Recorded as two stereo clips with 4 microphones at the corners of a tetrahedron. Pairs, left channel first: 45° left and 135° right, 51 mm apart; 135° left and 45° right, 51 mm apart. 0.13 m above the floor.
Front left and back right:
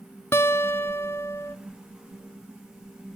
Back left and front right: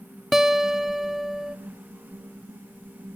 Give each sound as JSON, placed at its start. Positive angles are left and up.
{"t": 0.3, "sound": "a guitar", "azimuth_deg": 35, "distance_m": 0.7}